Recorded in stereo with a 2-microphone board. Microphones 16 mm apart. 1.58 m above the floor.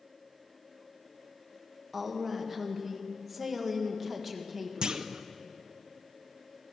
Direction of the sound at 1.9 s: 5° right (ahead or behind).